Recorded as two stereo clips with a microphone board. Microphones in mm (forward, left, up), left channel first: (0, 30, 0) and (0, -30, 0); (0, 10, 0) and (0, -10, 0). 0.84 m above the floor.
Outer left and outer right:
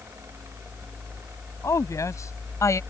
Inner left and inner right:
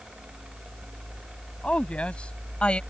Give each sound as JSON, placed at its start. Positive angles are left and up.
{"t": 1.6, "sound": "a woman speaking", "side_deg": 70}